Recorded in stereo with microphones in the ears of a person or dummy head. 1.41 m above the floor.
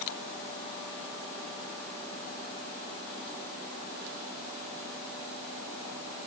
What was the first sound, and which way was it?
Only background noise.